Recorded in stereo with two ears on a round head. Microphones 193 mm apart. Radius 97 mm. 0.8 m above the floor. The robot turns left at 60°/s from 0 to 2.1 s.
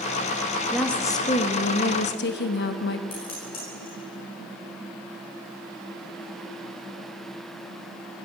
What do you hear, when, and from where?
0.7 s a woman speaking: 175° right, 0.8 m; by 3.0 s 100° left, 0.8 m
3.1 s dishes clattering: 25° left (ahead or behind), 6.5 m